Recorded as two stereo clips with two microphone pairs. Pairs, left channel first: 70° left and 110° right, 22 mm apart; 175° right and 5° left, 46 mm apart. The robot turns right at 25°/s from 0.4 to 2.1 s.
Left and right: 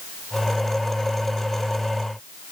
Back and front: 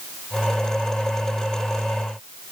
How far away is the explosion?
No explosion in this recording.